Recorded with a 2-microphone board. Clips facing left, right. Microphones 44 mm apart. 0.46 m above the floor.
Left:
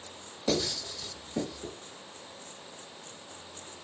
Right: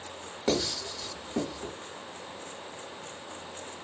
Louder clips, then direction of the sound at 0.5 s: Right 1 dB; 45° right (ahead or behind).